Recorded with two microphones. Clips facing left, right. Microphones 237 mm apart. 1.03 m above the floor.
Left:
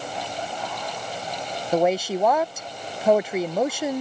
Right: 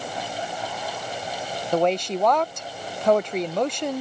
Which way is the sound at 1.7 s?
5° left (ahead or behind).